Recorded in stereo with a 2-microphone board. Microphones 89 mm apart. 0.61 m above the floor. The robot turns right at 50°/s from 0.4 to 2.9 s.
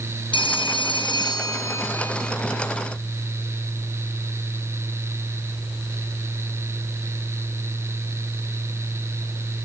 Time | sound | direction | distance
0.3 | a phone ringing | 80° left | 1.9 m